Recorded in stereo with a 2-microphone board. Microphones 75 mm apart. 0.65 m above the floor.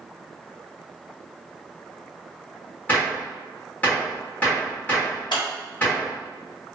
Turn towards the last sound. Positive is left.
turn(degrees=85)